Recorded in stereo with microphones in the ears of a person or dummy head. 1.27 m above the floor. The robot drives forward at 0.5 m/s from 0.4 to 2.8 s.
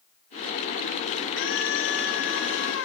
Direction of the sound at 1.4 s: 75° left (ahead or behind).